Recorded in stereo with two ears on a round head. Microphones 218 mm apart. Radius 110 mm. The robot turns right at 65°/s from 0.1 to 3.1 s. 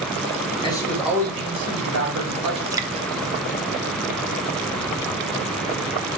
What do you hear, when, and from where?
0.6 s a man speaking: 155° left, 4 m; by 2.6 s 75° right, 4 m
2.7 s dripping: 15° right (ahead or behind), 0.6 m